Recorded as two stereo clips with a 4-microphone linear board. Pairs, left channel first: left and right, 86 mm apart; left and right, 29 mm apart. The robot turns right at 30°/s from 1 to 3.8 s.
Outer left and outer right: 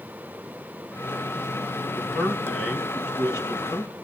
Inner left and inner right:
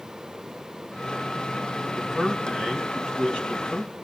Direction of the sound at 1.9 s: 10° right.